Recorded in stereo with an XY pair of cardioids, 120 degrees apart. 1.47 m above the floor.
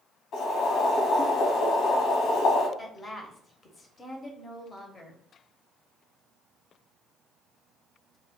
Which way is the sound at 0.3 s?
65° left.